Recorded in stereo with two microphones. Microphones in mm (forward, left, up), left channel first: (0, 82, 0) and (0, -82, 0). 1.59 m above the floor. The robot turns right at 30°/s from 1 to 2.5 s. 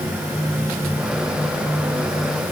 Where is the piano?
No piano in this recording.